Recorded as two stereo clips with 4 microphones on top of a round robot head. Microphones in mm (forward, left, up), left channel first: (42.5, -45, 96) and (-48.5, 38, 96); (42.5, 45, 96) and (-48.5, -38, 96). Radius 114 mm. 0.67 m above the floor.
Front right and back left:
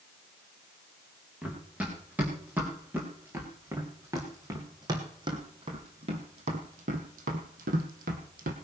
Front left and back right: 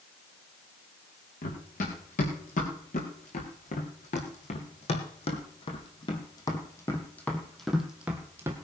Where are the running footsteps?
60° left, 4 m; by 8.5 s 150° left, 1.7 m.